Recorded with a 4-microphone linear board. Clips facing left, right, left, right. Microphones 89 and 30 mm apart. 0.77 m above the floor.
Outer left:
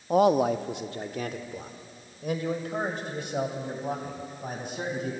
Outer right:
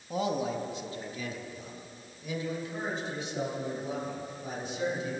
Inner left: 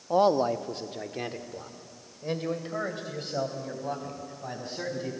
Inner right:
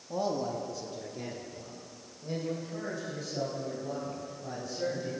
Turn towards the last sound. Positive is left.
turn(degrees=55)  # may be behind; listen again after turning